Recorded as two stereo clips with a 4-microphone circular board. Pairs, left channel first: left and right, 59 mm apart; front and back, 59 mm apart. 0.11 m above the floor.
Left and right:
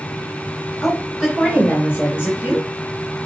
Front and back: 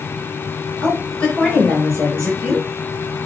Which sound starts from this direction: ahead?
A woman speaking, at 0.8 s.